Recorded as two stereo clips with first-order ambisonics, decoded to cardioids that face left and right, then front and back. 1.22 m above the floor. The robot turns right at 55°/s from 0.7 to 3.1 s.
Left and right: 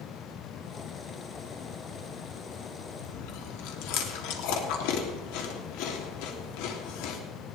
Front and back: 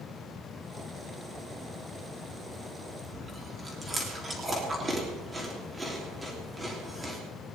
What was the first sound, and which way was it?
Chewing, 95° left.